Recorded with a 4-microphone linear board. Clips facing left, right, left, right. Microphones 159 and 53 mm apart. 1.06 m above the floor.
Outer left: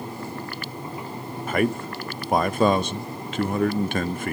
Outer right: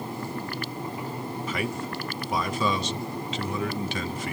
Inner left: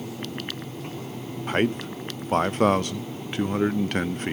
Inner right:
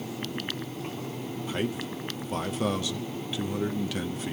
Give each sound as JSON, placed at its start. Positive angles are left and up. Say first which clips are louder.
{"t": 1.5, "sound": "a man speaking", "louder": "outer left 10 dB, inner left 8 dB", "side_deg": 60, "distance_m": 0.5}